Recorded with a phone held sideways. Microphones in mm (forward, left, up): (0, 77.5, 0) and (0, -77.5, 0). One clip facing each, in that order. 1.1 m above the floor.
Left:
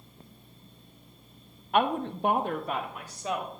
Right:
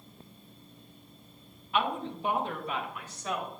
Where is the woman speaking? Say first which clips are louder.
Left 5 dB; 50° left (ahead or behind), 0.5 m; by 3.5 s 30° left (ahead or behind), 1.0 m.